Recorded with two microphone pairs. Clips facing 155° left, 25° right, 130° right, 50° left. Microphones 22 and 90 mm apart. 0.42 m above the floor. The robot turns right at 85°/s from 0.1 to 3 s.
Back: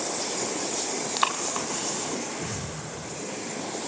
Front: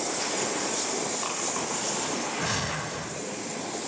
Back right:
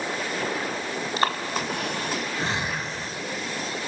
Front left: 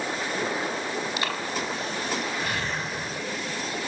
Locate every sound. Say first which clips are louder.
1.2 s breathing: back 4 dB, back right 4 dB; straight behind, 3.5 m; by 3.2 s 25° right, 3.5 m